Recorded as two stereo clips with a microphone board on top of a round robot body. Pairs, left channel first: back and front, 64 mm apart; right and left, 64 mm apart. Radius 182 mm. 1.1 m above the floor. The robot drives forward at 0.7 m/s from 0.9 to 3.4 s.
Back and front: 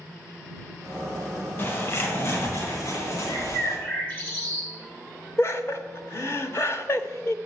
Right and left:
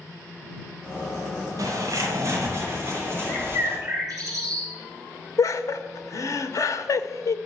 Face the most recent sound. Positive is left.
turn(degrees=-130)